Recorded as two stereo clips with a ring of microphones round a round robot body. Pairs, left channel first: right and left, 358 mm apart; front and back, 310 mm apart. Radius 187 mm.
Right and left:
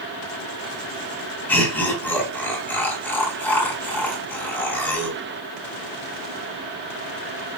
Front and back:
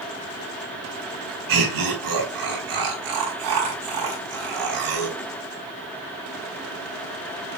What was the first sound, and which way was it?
Laughter, 175° right.